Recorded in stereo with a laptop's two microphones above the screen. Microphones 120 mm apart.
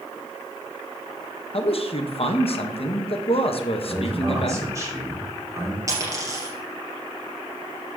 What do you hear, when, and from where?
1.5 s a man speaking: 55° left (ahead or behind), 1.0 m
3.8 s a man speaking: 25° right (ahead or behind), 2.5 m
5.9 s a dropped coin: 30° right (ahead or behind), 3 m